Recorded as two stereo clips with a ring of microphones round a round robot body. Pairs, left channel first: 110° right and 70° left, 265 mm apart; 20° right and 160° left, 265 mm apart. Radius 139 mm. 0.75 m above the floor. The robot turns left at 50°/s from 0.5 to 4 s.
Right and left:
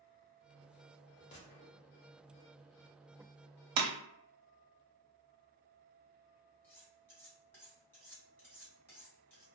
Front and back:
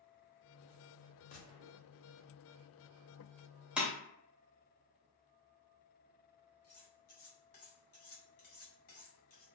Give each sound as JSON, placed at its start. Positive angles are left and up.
{"t": 1.3, "sound": "a gunshot", "azimuth_deg": -65, "distance_m": 0.5}
{"t": 3.8, "sound": "breaking glass", "azimuth_deg": 70, "distance_m": 0.5}
{"t": 6.6, "sound": "cutlery clinking", "azimuth_deg": -30, "distance_m": 1.5}